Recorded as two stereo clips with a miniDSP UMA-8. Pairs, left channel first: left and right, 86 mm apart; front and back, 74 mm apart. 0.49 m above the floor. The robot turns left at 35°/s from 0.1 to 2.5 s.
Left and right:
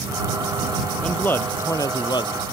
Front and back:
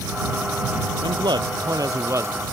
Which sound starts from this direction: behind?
A man speaking, at 1.0 s.